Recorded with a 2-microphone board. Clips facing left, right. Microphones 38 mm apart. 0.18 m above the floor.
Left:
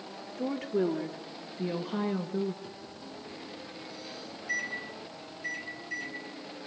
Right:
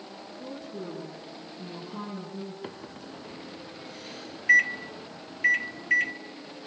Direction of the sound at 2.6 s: 55° right (ahead or behind).